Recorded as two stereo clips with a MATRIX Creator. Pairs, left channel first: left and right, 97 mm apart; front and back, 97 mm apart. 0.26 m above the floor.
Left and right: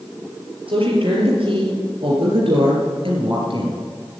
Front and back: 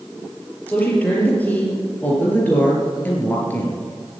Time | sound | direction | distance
0.7 | a woman speaking | 75° right | 5.5 m